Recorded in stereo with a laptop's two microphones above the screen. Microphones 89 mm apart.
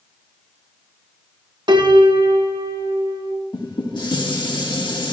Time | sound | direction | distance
1.7 | a piano | 60° right (ahead or behind) | 1.2 m
3.5 | dishes clattering | 60° left (ahead or behind) | 1.6 m